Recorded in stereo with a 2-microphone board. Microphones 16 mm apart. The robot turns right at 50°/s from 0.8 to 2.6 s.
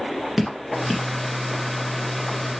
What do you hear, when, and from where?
0.4 s dripping: 15° right (ahead or behind), 1.5 m; by 1.1 s 5° right (ahead or behind), 1.5 m